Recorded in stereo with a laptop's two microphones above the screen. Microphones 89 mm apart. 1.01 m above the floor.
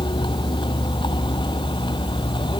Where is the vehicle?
60° left (ahead or behind).